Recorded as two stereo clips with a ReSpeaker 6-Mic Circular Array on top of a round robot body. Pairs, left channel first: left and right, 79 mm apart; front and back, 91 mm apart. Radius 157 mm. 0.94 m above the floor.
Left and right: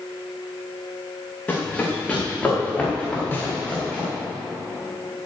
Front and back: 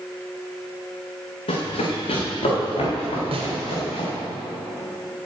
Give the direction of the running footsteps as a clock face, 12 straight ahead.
11 o'clock.